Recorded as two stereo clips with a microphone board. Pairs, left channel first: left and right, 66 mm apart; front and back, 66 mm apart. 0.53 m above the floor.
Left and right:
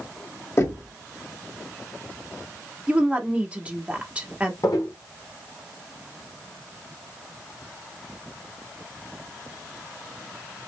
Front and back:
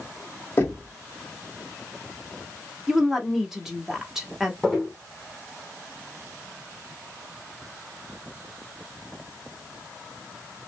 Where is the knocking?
50° left, 1.9 m.